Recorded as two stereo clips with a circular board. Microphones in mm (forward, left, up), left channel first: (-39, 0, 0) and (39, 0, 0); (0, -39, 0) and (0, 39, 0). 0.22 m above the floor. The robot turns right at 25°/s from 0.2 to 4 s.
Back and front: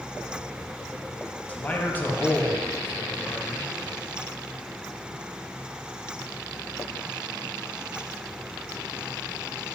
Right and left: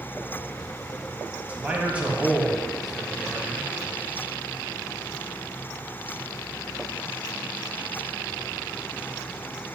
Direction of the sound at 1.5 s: 135° left.